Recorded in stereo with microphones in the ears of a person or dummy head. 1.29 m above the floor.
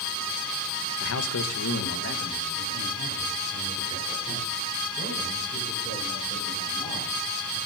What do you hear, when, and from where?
1.0 s a man speaking: 65° left (ahead or behind), 1.2 m; by 7.6 s 25° left (ahead or behind), 9 m